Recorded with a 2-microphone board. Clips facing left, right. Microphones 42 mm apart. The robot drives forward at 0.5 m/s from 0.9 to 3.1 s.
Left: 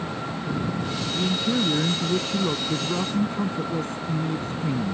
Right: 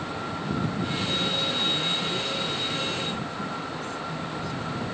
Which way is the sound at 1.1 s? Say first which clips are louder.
Left 7 dB; 35° left (ahead or behind).